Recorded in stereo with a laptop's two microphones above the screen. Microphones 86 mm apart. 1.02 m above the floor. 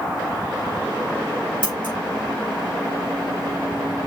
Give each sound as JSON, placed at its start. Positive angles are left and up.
{"t": 1.6, "sound": "scissors", "side_deg": 80, "distance_m": 3.0}